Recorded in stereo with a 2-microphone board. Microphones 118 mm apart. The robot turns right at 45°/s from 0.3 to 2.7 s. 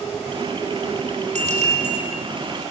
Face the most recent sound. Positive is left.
turn(degrees=-40)